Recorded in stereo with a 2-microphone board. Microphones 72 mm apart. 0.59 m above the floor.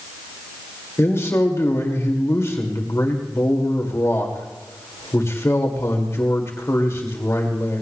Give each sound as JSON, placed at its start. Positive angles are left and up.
{"t": 1.0, "sound": "a man speaking", "side_deg": 40, "distance_m": 2.0}